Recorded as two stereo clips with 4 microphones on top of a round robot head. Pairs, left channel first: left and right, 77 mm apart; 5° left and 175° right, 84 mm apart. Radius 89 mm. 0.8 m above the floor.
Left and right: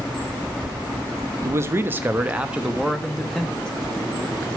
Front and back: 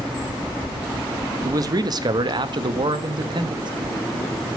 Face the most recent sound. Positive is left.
turn(degrees=170)